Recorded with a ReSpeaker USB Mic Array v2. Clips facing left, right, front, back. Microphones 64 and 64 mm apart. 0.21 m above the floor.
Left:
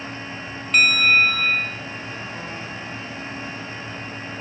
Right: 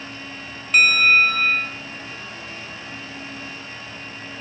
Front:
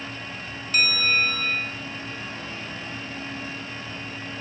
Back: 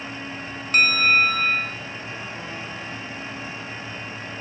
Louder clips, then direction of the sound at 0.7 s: Right 1 dB, back 5 dB; 175° right.